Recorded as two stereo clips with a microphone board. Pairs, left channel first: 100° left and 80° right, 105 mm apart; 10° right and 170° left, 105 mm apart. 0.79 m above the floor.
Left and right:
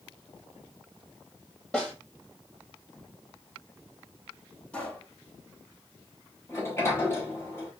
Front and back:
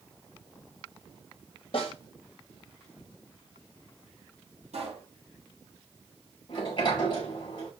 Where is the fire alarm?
I don't hear a fire alarm.